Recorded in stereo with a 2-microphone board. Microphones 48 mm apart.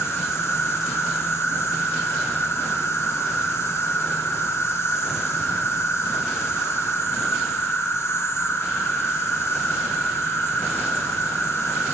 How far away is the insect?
About 2.5 m.